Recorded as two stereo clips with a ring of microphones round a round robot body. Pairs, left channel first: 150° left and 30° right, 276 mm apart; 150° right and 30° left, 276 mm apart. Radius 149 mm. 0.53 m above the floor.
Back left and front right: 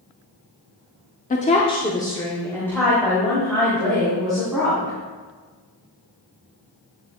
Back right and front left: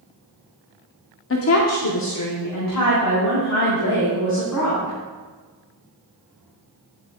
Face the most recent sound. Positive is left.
turn(degrees=-120)